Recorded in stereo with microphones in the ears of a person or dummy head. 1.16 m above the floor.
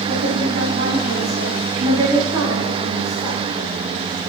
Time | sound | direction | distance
0.1 | a woman speaking | 55° right (ahead or behind) | 2.5 m